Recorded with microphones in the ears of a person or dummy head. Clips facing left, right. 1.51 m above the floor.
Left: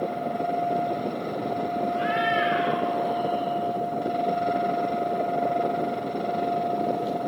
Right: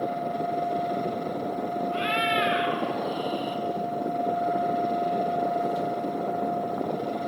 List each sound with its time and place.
1.9 s a cat meowing: 40° right (ahead or behind), 4 m